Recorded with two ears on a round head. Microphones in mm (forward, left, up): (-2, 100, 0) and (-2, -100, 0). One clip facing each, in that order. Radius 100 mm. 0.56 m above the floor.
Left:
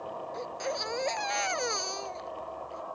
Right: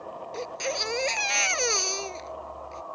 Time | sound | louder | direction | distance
0.3 | a baby crying | right 4 dB | 40° right (ahead or behind) | ?